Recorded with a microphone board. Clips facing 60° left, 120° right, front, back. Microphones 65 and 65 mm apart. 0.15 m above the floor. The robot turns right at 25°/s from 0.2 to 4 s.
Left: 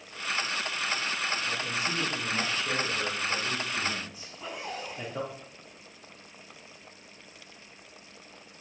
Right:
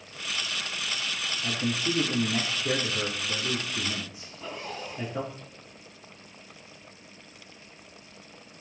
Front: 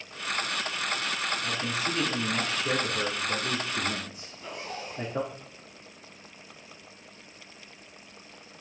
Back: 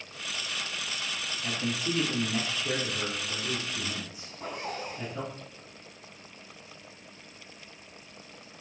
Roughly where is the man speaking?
Right.